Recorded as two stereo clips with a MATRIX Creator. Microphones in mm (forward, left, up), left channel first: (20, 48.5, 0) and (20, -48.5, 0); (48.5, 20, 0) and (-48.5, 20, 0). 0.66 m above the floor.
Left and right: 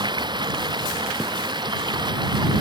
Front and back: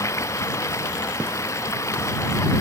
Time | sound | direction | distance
0.0 | running water | 55° right | ?